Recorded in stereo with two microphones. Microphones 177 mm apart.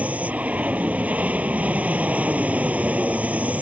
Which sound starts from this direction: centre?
An aircraft, at 0.0 s.